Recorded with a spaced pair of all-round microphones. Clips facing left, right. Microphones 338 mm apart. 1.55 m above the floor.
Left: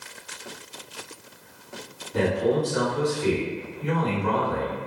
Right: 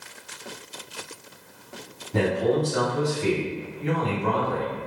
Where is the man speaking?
90° right, 1.5 m.